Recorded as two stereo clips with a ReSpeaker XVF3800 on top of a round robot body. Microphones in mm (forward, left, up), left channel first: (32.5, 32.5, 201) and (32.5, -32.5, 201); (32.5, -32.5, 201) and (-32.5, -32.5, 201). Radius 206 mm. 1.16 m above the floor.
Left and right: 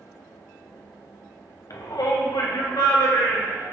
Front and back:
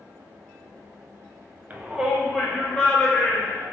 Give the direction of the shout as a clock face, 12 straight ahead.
8 o'clock.